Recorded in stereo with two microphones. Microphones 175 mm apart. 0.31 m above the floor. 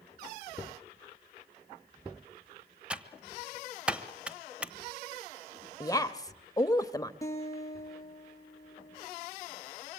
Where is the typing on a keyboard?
5° right (ahead or behind), 1.2 m.